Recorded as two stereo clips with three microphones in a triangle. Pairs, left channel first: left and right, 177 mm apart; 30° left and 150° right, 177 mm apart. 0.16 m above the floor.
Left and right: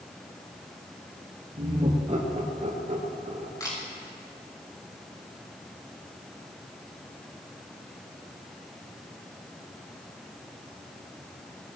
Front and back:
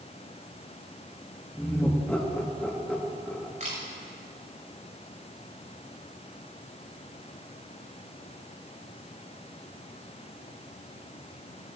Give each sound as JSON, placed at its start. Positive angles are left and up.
{"t": 1.6, "sound": "laughter", "azimuth_deg": -50, "distance_m": 3.0}
{"t": 3.6, "sound": "a camera shutter", "azimuth_deg": 160, "distance_m": 6.0}